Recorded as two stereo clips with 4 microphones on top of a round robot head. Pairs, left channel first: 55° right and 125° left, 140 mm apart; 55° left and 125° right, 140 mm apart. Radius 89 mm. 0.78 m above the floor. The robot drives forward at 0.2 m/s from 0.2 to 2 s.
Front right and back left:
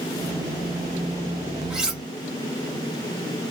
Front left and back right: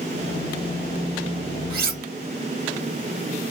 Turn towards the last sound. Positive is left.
turn(degrees=-150)